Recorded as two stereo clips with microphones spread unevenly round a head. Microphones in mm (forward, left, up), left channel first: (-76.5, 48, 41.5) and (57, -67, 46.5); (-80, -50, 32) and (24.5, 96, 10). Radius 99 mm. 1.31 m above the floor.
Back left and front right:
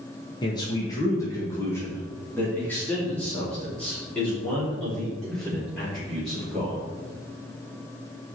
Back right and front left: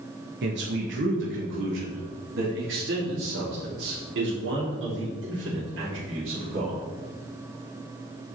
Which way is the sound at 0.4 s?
75° left.